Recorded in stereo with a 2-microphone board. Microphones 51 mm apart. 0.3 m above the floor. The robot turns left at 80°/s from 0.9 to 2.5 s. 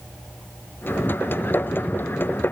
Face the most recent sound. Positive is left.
No sound to turn to.